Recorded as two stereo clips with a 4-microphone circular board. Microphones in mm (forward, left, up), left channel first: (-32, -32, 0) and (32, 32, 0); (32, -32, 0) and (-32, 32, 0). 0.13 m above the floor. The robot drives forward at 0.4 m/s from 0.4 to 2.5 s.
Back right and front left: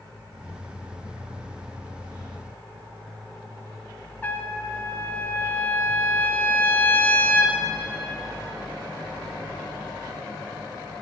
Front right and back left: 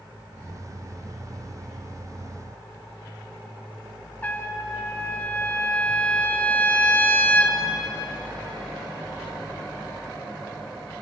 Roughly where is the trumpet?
Right.